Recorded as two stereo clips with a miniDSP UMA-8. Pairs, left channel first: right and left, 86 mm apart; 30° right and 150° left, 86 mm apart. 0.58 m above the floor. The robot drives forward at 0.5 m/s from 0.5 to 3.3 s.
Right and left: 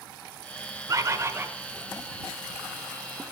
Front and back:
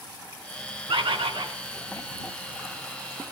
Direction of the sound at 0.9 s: 135° left.